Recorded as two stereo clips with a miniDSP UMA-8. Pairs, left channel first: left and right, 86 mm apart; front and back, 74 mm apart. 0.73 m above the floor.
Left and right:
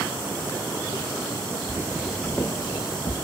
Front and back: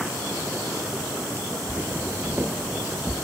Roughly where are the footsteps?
Behind right.